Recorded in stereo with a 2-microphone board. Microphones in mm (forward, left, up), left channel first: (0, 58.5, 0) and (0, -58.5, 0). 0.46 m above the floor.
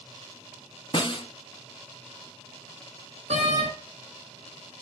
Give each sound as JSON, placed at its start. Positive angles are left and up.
{"t": 0.9, "sound": "a snare drum", "side_deg": 45, "distance_m": 1.0}
{"t": 3.3, "sound": "a door slam", "side_deg": -70, "distance_m": 4.0}